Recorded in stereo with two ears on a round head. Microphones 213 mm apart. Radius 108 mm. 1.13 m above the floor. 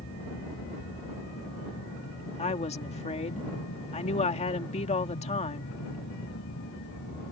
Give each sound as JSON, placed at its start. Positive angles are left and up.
{"t": 0.0, "sound": "an aircraft", "side_deg": 50}
{"t": 2.4, "sound": "a woman speaking", "side_deg": 30}